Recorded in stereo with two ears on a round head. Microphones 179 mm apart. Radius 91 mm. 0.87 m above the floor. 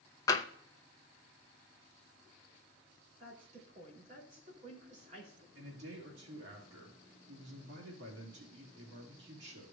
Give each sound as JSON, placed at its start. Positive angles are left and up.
{"t": 0.3, "sound": "tapping", "side_deg": 20, "distance_m": 0.7}
{"t": 3.2, "sound": "a woman speaking", "side_deg": -40, "distance_m": 3.0}
{"t": 5.5, "sound": "a man speaking", "side_deg": -65, "distance_m": 2.0}